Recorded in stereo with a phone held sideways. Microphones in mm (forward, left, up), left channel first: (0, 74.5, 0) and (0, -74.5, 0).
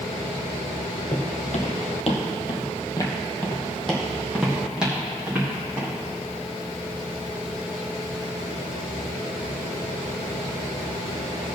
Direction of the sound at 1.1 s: 65° left (ahead or behind).